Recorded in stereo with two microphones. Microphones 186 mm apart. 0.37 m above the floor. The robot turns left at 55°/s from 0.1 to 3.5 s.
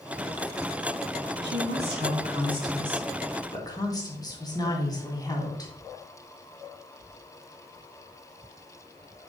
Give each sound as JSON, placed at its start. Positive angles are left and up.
{"t": 1.4, "sound": "a woman speaking", "azimuth_deg": -90, "distance_m": 3.0}